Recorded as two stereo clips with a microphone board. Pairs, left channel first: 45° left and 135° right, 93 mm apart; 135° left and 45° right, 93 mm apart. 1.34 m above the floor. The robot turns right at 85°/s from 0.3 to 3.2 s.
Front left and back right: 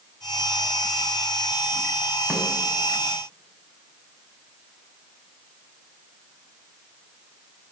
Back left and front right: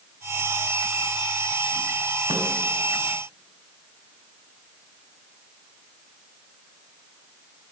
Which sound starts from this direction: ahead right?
A snare drum, at 2.3 s.